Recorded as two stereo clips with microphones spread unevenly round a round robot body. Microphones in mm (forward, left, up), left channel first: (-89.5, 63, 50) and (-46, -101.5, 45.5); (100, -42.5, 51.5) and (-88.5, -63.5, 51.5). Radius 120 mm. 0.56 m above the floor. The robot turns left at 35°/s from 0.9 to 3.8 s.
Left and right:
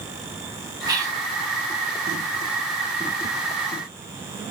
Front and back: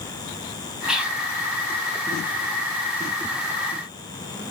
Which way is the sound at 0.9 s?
90° right.